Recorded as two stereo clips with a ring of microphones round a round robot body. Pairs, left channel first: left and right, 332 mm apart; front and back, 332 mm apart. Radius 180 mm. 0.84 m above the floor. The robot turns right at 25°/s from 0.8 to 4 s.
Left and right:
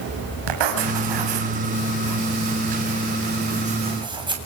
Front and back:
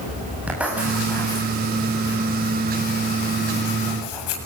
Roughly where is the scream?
I don't hear a scream.